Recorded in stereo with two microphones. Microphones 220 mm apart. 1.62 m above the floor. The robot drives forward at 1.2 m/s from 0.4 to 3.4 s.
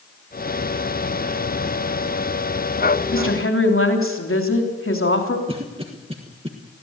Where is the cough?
25° right (ahead or behind), 1.5 m.